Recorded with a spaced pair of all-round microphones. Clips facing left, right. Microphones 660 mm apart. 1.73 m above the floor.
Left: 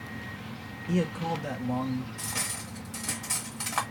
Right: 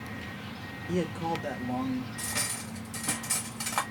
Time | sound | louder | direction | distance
0.9 | a man speaking | left 1 dB | 40° left (ahead or behind) | 0.6 m
2.2 | cutlery clinking | right 1 dB | centre (ahead or behind) | 0.9 m